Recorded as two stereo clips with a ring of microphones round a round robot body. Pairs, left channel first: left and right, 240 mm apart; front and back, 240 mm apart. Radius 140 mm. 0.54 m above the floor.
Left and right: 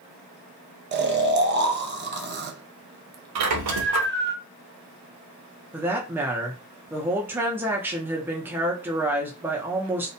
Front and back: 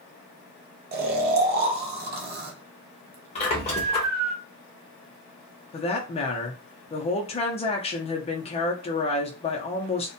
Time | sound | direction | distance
0.9 | snoring | 135° right | 0.6 m
3.4 | a squeak | 70° right | 0.6 m
5.7 | a woman speaking | 20° right | 0.6 m